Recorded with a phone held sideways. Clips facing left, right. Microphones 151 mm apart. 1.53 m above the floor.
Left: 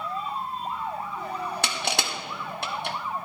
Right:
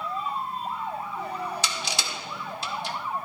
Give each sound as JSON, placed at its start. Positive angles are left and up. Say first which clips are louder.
{"t": 1.6, "sound": "crushing", "louder": "left 3 dB", "side_deg": 60, "distance_m": 1.0}